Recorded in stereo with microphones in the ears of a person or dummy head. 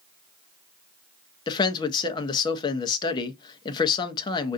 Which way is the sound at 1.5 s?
20° left (ahead or behind).